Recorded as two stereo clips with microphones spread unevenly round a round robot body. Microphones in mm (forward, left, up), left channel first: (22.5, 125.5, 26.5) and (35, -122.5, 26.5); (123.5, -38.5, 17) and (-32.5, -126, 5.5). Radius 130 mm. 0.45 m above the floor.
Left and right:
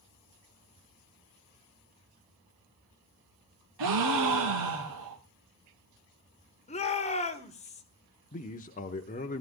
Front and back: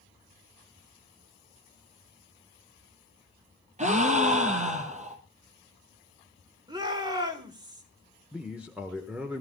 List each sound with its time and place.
3.8 s a gasp: 100° right, 3 m
6.7 s a shout: 150° left, 1.6 m
8.3 s a man speaking: 130° left, 1.0 m